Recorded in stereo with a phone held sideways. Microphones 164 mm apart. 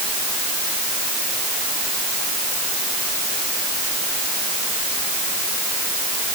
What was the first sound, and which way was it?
Only background noise.